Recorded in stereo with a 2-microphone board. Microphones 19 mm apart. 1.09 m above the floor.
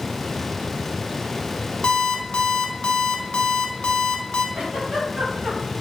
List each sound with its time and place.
1.8 s an alarm clock: 55° left (ahead or behind), 1.9 m
4.5 s a giggle: 35° right (ahead or behind), 4.5 m